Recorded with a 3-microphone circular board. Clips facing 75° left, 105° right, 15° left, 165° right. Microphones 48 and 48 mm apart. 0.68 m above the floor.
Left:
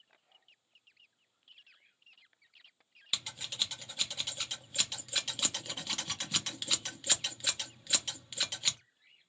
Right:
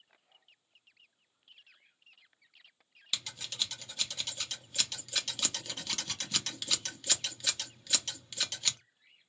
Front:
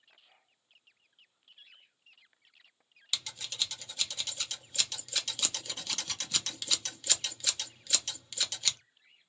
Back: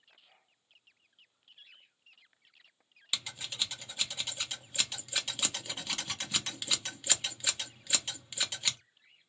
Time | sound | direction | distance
3.1 | scissors | 145° left | 0.8 m